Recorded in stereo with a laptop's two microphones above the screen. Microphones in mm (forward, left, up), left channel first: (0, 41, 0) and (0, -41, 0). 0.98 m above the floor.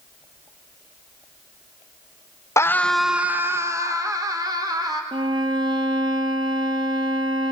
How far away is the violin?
About 1.5 m.